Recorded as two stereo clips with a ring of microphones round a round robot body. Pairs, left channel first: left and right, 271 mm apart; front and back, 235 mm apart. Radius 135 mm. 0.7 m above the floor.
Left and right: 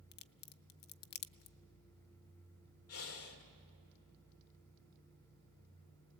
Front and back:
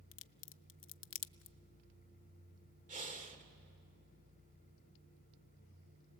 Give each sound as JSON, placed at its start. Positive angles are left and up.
{"t": 0.1, "sound": "a crack", "azimuth_deg": 35, "distance_m": 0.6}
{"t": 2.9, "sound": "breathing", "azimuth_deg": 125, "distance_m": 2.5}